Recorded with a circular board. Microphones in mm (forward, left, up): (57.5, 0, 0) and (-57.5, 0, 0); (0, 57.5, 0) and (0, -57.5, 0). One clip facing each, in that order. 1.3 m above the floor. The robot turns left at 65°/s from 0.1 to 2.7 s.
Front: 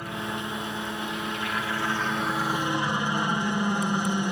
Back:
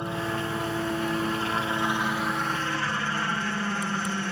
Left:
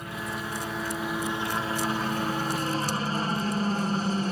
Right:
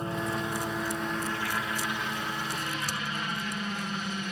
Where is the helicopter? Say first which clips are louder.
Back 3 dB, right 3 dB; 125° right; by 4.3 s 65° left.